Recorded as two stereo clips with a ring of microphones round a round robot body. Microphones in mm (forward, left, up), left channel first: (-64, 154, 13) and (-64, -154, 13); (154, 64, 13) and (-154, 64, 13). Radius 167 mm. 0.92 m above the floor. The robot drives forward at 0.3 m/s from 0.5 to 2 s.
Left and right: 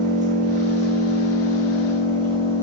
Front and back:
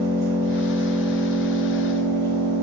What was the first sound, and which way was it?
An engine running, 150° right.